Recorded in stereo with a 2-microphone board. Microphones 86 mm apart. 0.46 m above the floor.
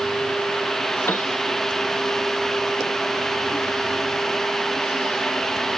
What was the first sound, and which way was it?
A piano, 25° left (ahead or behind).